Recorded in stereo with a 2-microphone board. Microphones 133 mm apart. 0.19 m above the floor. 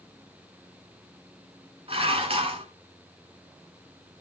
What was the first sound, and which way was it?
Dishes clattering, 45° right (ahead or behind).